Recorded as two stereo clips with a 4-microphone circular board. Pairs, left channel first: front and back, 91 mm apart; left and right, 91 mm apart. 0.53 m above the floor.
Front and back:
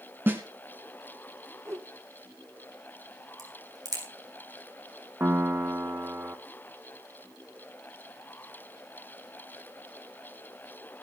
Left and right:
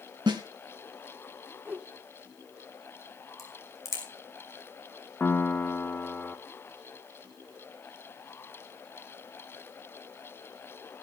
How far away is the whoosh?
About 1.2 m.